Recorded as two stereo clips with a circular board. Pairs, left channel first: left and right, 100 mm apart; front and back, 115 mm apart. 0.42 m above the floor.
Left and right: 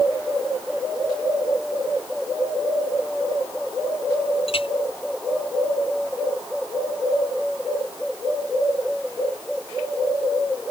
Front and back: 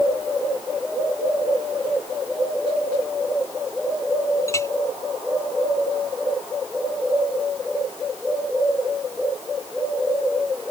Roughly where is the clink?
Ahead left.